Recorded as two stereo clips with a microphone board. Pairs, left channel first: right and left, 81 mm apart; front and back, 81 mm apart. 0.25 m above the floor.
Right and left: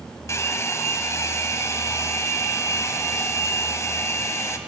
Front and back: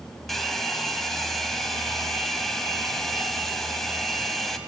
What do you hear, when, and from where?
0.3 s a hair dryer: 85° right, 1.8 m